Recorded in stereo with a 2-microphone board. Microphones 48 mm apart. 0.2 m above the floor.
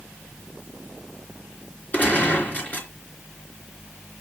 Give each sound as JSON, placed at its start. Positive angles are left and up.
{"t": 1.9, "sound": "a gunshot", "side_deg": 40, "distance_m": 3.0}